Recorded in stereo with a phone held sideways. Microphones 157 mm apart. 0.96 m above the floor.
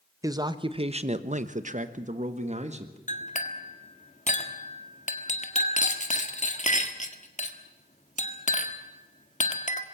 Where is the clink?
50° left (ahead or behind), 1.6 m.